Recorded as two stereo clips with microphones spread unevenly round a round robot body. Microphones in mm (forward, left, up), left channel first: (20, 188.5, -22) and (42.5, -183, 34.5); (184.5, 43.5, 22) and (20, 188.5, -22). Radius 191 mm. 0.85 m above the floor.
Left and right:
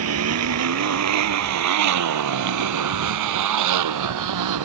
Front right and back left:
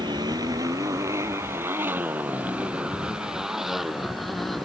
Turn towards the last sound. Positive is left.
turn(degrees=-130)